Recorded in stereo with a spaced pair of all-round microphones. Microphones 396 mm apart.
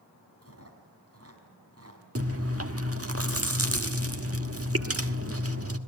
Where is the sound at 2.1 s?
35° right (ahead or behind), 1.5 m.